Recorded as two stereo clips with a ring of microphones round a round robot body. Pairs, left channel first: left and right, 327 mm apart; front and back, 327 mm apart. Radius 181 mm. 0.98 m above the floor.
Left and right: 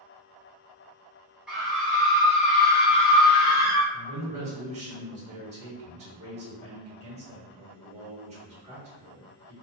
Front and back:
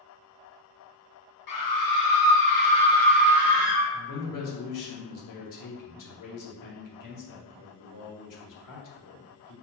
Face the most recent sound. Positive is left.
turn(degrees=-20)